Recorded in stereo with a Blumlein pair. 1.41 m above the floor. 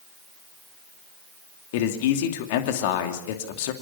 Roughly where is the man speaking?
Ahead left.